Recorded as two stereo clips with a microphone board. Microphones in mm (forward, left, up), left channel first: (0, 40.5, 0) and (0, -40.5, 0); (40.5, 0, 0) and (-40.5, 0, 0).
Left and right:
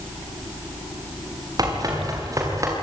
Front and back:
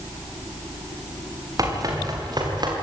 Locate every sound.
1.6 s running footsteps: 130° right, 7.5 m; by 2.7 s 145° right, 7 m